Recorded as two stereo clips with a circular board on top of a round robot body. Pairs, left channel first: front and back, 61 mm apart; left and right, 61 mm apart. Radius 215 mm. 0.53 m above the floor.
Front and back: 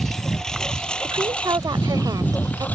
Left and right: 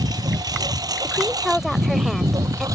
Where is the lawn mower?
85° right; by 2.8 s 65° right.